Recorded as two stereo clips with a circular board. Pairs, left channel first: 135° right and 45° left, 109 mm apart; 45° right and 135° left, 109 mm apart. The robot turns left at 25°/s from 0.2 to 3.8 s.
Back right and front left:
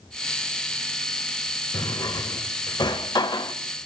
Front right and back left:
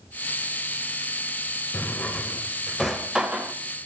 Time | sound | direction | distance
1.7 | a drawer | 110° right | 0.8 m